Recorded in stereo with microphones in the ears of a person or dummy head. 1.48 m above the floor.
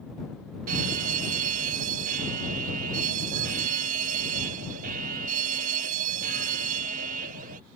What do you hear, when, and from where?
0.7 s a fire alarm: 40° right (ahead or behind)